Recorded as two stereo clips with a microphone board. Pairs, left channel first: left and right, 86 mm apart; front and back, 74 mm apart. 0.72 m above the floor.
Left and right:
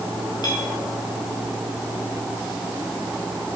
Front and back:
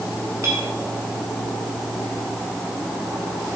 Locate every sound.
0.4 s a clink: 130° left, 5.5 m